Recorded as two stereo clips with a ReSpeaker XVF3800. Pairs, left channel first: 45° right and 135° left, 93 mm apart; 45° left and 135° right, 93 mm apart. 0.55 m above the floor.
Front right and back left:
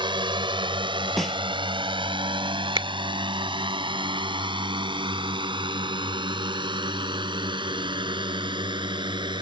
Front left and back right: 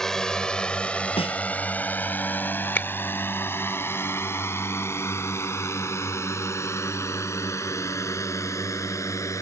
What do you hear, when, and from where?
0.0 s a drone: 130° left; by 9.4 s 100° left
1.2 s a snare drum: 45° left
2.8 s a finger snap: 115° left